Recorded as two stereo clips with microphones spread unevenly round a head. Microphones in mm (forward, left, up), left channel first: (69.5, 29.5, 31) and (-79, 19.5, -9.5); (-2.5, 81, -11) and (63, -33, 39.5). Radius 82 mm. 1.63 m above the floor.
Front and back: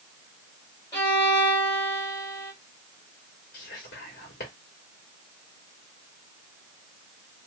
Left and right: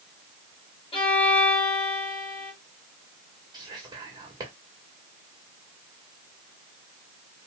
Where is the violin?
60° left, 2.5 m.